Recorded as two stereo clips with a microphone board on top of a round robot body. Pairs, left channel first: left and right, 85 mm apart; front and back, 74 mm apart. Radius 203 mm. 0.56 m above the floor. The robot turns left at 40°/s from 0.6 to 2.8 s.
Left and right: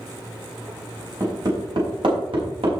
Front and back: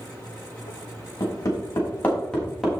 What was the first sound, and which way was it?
Hammering, 35° right.